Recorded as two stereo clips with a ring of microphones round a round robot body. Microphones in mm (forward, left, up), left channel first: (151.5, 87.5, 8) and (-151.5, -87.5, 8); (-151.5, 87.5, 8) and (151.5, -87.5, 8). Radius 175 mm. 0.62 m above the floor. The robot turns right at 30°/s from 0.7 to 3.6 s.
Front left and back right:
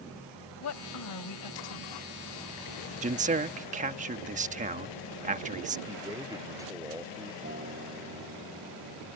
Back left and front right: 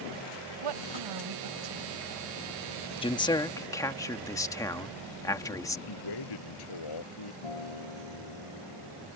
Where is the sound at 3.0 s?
165° right; by 5.8 s 145° right.